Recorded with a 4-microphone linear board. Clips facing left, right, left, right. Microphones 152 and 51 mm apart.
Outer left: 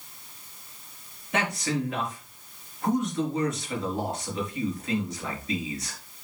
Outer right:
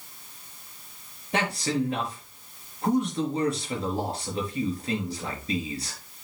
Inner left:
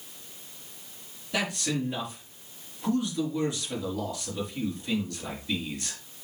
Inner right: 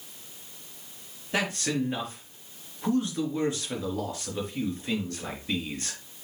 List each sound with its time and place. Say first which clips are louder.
1.3 s a man speaking: outer right 1 dB, inner right 1 dB; 30° right (ahead or behind), 3.5 m